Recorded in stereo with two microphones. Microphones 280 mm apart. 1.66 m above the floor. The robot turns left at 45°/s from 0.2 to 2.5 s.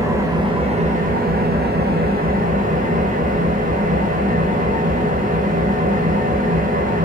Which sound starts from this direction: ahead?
An engine running, at 0.0 s.